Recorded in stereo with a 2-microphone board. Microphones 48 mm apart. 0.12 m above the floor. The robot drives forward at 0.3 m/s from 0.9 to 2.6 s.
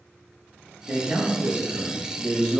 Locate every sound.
0.9 s a man speaking: 35° right (ahead or behind), 1.3 m; by 2.6 s 30° right (ahead or behind), 1.4 m